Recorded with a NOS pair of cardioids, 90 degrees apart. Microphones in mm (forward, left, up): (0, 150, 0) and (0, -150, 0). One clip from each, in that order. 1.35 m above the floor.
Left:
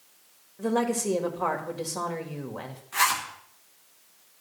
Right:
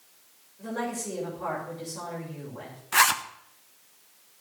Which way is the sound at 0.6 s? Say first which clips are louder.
Left 6 dB; 65° left.